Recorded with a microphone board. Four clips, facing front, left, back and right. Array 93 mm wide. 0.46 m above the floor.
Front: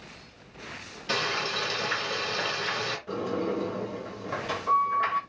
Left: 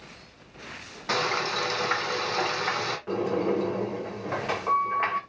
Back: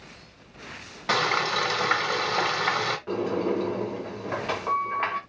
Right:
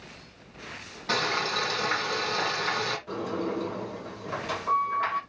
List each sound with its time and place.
1.1 s frying: 170° left, 1.7 m
3.1 s a sliding door: 140° left, 2.5 m